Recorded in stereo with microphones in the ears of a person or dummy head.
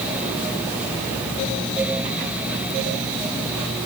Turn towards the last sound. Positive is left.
No sound to turn to.